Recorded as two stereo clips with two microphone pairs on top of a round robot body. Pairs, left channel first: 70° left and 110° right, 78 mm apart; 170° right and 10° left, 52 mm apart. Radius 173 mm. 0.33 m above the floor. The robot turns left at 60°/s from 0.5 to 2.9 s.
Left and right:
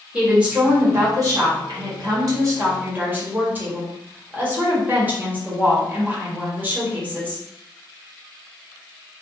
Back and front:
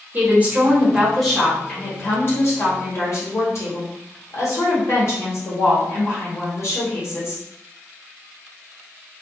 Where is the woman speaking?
30° right, 1.4 m; by 7.4 s 175° right, 1.4 m.